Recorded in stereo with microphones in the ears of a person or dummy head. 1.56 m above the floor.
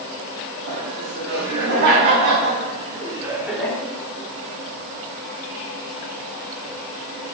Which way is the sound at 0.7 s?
75° right (ahead or behind).